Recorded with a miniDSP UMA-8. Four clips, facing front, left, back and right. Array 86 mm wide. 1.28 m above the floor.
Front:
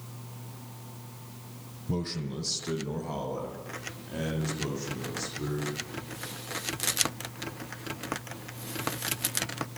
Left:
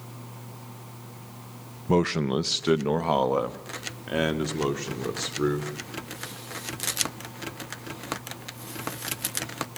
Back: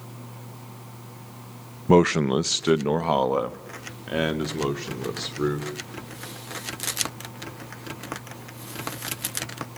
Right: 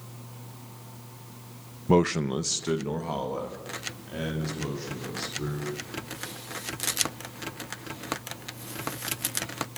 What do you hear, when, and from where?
1.9 s a man speaking: 170° right, 0.6 m; by 5.7 s 140° left, 4 m